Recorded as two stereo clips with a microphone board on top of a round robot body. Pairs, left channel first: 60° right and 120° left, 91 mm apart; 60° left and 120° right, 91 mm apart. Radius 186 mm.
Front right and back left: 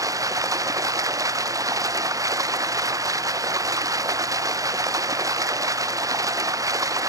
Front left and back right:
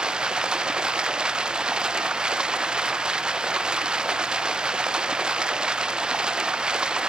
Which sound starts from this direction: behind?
Running water, at 0.0 s.